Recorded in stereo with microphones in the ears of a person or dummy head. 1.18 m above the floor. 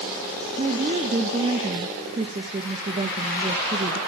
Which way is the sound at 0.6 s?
35° right (ahead or behind).